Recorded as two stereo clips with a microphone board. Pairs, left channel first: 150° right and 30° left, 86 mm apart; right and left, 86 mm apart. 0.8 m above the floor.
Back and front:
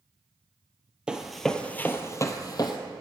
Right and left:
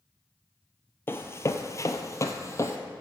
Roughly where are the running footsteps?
Ahead right.